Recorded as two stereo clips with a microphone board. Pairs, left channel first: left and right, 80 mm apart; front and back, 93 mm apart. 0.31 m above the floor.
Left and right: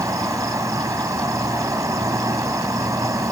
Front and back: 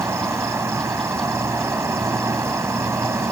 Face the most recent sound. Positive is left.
turn(degrees=-125)